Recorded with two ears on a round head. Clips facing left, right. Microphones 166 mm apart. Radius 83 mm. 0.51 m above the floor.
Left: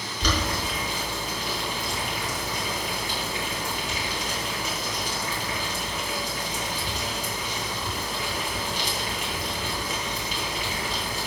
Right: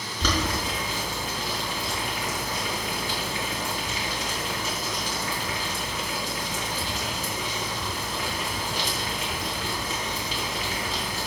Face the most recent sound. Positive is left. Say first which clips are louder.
# right 1 dB
turn(degrees=-75)  # may be behind; listen again after turning